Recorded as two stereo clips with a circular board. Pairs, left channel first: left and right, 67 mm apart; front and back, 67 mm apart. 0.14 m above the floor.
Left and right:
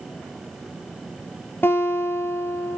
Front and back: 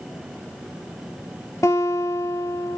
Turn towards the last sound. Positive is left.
turn(degrees=35)